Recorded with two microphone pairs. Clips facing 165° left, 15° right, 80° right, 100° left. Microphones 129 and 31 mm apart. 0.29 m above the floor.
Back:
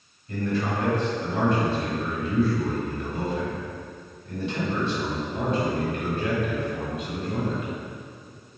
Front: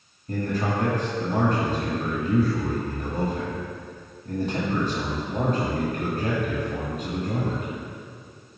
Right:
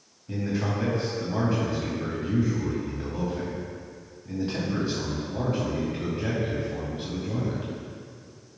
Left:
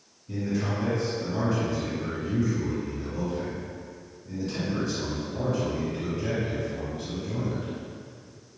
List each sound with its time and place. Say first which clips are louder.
0.3 s a man speaking: even, even; 35° right, 2.0 m